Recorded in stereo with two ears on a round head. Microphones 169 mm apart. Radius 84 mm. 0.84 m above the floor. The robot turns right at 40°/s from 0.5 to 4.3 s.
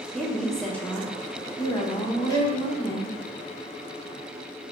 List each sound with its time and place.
0.1 s a woman speaking: centre (ahead or behind), 0.5 m; by 3.2 s 25° left (ahead or behind), 0.5 m
2.3 s a violin: 25° left (ahead or behind), 1.4 m; by 2.6 s 10° left (ahead or behind), 1.4 m